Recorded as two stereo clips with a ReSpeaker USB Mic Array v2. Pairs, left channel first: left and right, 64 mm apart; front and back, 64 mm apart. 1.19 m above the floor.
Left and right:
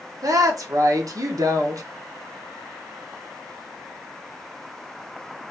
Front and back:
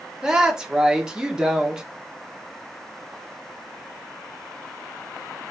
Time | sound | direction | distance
0.2 | a woman speaking | 105° right | 1.1 m